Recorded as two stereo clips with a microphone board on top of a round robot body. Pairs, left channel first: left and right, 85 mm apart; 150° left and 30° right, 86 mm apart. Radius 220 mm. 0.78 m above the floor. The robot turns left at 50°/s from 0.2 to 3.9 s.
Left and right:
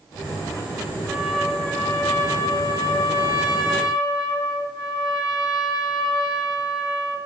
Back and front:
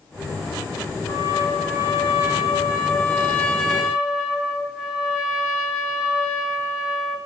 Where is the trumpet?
170° right, 1.8 m; by 7.2 s 50° left, 1.8 m.